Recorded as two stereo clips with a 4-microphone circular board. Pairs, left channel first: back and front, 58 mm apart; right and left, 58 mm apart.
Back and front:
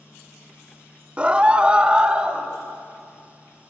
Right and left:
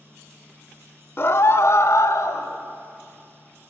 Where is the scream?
60° right, 1.1 m; by 2.5 s 75° right, 2.5 m.